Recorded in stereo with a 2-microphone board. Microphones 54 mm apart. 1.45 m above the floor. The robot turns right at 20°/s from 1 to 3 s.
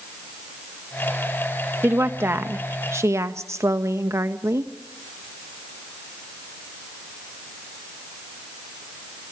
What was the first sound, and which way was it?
A woman speaking, 35° right (ahead or behind).